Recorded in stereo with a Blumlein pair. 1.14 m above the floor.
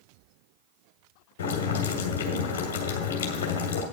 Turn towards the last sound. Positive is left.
turn(degrees=55)